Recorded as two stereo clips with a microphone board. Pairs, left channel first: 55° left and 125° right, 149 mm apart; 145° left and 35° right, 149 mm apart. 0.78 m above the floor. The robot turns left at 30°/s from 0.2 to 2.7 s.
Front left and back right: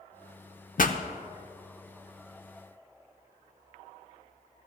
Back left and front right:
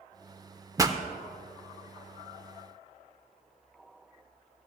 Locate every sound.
0.8 s a pop: 35° left, 0.7 m; by 1.0 s 25° left, 0.7 m